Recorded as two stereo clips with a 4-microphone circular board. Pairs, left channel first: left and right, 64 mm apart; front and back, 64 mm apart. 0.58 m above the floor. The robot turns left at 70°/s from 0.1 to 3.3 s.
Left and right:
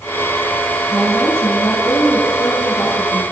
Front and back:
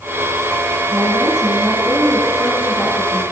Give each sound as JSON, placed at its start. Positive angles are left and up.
{"t": 0.9, "sound": "a woman speaking", "azimuth_deg": -170, "distance_m": 6.0}